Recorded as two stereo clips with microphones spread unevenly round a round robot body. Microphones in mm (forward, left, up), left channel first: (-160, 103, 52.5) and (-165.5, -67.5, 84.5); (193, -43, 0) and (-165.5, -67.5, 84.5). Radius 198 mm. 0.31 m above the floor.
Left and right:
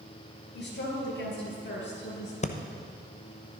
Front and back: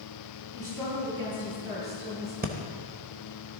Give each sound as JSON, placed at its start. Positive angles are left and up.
{"t": 0.5, "sound": "a woman speaking", "azimuth_deg": 105, "distance_m": 5.0}
{"t": 2.4, "sound": "breathing", "azimuth_deg": 110, "distance_m": 1.0}